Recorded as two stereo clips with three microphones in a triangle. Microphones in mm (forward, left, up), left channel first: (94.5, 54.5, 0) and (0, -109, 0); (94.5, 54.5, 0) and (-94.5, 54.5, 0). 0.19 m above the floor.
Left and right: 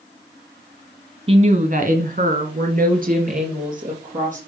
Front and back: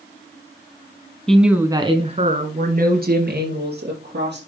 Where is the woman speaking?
85° right, 1.4 m; by 4.4 s 165° right, 4.5 m.